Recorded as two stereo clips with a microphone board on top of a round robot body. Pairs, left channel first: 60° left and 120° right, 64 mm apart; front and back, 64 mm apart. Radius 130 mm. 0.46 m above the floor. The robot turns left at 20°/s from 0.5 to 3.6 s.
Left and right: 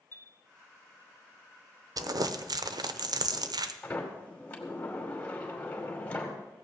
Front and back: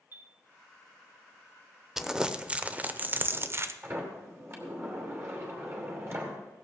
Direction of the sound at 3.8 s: 130° left.